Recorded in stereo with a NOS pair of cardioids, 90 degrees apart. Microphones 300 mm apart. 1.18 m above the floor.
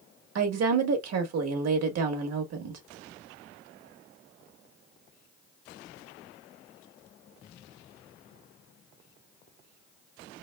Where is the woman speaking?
55° right, 1.6 m.